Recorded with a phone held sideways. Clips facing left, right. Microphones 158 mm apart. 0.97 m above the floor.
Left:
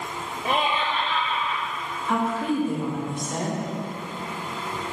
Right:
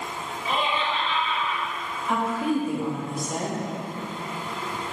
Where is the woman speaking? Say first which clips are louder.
Even; 5° right (ahead or behind), 2 m.